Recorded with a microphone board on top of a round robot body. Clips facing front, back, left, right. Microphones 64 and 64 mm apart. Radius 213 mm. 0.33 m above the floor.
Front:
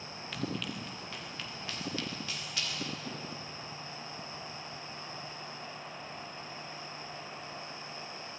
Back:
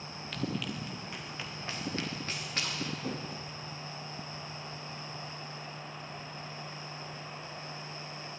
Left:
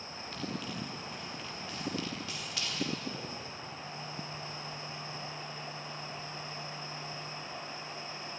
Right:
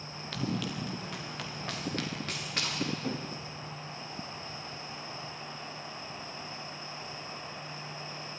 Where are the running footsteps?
90° right, 2.5 m; by 3.5 s 140° right, 4 m.